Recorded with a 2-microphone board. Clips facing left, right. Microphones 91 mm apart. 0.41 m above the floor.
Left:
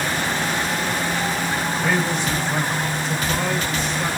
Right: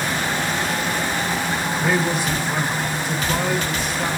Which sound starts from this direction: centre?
A man speaking, at 1.7 s.